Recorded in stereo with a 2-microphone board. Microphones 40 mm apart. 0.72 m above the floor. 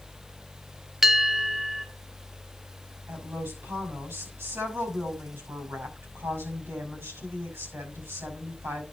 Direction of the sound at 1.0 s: 5° right (ahead or behind).